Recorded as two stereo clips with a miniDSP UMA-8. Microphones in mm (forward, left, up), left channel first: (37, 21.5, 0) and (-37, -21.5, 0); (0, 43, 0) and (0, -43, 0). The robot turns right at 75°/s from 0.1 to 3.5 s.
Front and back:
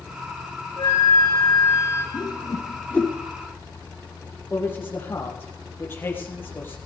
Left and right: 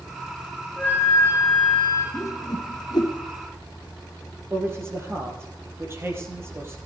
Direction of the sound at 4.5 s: 35° right.